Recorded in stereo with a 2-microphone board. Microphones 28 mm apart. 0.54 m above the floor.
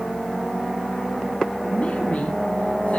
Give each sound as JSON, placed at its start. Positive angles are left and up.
{"t": 1.7, "sound": "a woman speaking", "side_deg": 55, "distance_m": 4.0}